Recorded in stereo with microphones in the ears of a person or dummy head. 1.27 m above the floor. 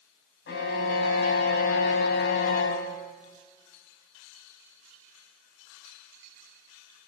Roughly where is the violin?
Left.